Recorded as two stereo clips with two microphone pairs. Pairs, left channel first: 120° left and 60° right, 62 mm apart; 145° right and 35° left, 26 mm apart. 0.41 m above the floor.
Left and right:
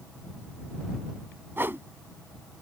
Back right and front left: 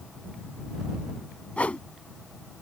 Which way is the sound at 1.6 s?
120° right.